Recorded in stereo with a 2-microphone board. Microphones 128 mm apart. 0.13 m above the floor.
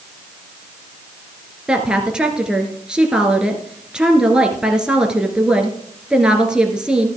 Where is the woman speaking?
5° right (ahead or behind), 1.8 m.